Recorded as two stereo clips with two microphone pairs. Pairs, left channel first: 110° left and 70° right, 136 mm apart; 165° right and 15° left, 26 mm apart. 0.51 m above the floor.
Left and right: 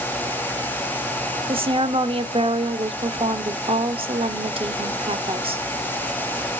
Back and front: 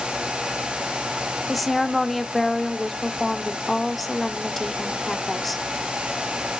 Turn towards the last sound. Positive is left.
turn(degrees=-70)